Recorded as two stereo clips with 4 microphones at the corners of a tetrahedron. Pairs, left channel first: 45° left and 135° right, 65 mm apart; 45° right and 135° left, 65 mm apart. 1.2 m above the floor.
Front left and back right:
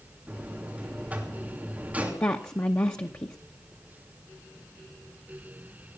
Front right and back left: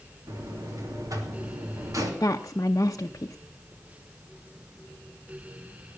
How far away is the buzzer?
About 3 m.